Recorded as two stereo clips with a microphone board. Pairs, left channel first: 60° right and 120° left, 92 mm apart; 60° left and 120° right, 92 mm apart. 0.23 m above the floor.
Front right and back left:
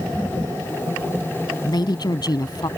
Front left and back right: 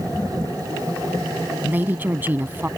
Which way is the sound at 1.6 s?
60° right.